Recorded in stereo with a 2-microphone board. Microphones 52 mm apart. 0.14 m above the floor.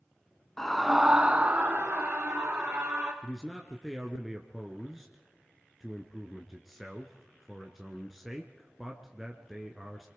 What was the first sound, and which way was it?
A scream, 10° left (ahead or behind).